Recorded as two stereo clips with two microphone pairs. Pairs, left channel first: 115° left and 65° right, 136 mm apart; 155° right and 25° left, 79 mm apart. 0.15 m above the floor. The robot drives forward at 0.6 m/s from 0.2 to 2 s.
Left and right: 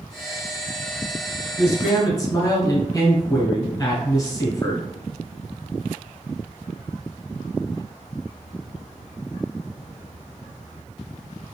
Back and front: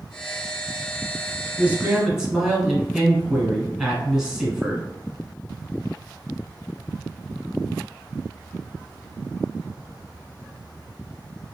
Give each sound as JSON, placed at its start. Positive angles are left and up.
{"t": 1.6, "sound": "a man speaking", "azimuth_deg": 75, "distance_m": 1.2}